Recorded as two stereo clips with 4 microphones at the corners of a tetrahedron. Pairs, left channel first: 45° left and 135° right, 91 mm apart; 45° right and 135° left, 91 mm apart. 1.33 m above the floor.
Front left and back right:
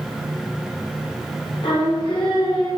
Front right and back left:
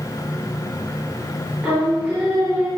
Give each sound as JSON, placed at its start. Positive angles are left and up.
{"t": 1.6, "sound": "singing", "azimuth_deg": 60, "distance_m": 4.0}